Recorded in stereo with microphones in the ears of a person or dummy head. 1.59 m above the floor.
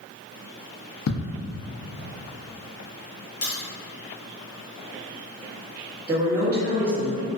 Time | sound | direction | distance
1.1 | ticking | 75° left (ahead or behind) | 0.5 m
3.4 | a crack | 50° left (ahead or behind) | 1.3 m
6.1 | a woman speaking | 15° right (ahead or behind) | 0.8 m